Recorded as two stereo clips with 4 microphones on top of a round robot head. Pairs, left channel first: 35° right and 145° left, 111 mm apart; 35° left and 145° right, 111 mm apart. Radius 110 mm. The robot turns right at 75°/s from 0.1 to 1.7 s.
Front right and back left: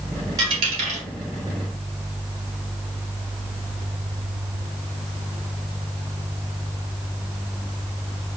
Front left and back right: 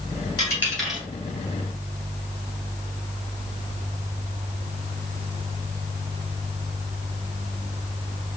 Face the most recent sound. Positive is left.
turn(degrees=-170)